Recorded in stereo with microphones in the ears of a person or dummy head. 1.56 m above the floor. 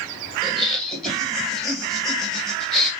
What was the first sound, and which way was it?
Laughter, centre (ahead or behind).